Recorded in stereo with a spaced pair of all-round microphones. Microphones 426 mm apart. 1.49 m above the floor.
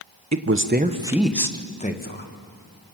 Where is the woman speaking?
40° right (ahead or behind), 1.3 m; by 2.3 s 25° left (ahead or behind), 2 m.